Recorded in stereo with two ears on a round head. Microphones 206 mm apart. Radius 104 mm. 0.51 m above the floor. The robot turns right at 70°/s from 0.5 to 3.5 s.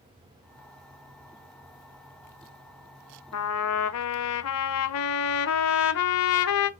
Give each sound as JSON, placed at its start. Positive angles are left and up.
{"t": 3.3, "sound": "a trumpet", "side_deg": 85, "distance_m": 0.5}